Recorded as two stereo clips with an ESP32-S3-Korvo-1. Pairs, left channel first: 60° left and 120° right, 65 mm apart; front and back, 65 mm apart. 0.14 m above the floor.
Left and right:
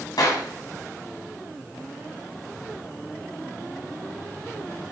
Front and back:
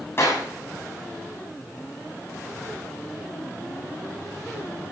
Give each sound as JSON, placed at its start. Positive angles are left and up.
{"t": 0.2, "sound": "a clap", "azimuth_deg": 50, "distance_m": 8.5}